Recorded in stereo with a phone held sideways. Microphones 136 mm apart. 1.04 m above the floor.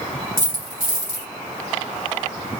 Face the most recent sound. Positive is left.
turn(degrees=80)